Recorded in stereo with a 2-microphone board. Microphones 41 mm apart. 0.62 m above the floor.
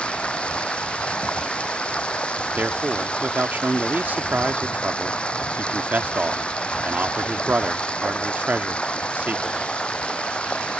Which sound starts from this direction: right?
A man speaking, at 2.6 s.